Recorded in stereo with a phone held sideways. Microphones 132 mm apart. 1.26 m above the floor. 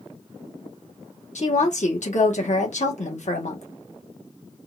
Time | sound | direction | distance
1.4 | a woman speaking | 65° left (ahead or behind) | 1.3 m